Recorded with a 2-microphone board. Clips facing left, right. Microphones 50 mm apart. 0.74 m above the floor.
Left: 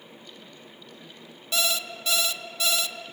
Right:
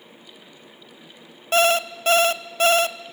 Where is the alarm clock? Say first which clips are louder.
Right 10 dB; 45° right (ahead or behind), 0.6 m.